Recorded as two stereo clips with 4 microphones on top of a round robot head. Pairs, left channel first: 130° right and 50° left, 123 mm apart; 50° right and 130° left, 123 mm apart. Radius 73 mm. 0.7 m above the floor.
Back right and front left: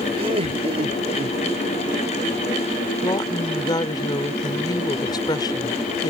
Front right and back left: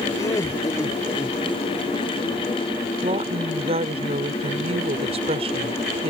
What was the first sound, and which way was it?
Laughter, 15° left.